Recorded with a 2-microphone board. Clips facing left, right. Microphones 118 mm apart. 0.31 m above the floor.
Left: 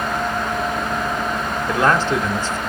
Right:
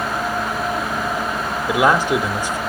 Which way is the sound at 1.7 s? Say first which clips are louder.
Right 2 dB; 10° right (ahead or behind).